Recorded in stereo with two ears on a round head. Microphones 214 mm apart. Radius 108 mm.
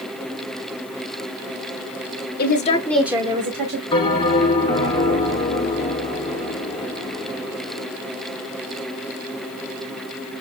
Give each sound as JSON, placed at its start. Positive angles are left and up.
{"t": 2.4, "sound": "a woman speaking", "side_deg": 40, "distance_m": 1.3}
{"t": 3.9, "sound": "a bell", "side_deg": 20, "distance_m": 1.6}